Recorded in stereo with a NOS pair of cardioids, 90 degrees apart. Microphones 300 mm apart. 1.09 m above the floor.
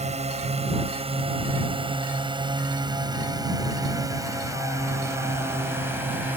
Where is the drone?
20° right; by 6.4 s 5° right.